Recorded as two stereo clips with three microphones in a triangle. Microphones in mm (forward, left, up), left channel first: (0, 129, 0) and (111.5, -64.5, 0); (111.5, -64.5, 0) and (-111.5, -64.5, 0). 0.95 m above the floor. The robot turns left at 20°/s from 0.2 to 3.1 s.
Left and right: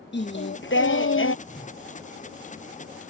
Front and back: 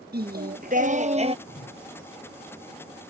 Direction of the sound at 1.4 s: 65° left.